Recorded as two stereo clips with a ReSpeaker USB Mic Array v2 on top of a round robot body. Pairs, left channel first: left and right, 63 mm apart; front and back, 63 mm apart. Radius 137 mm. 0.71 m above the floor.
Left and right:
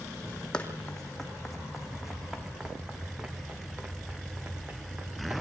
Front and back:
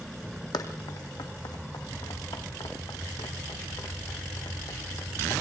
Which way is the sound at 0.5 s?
15° left.